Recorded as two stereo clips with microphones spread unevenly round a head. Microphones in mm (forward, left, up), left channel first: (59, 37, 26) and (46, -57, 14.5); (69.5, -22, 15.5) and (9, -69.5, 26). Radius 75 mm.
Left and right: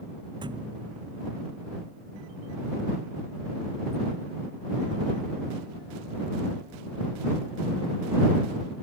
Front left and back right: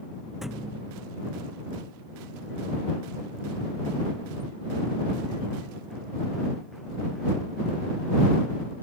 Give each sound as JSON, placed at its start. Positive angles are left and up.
{"t": 0.4, "sound": "a thud", "azimuth_deg": -60}